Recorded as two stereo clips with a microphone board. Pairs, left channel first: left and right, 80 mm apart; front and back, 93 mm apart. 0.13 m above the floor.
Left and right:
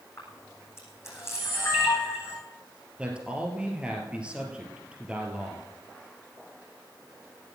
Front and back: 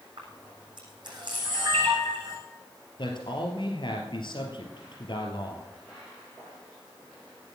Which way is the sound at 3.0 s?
15° right.